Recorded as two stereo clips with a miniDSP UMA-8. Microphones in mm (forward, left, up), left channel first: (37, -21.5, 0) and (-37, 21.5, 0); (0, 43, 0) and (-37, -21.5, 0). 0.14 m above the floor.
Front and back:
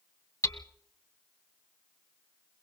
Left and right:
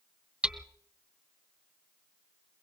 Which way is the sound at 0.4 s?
55° right.